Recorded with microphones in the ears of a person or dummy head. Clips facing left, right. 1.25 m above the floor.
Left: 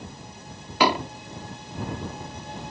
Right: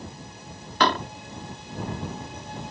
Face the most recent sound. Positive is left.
turn(degrees=10)  # may be behind; listen again after turning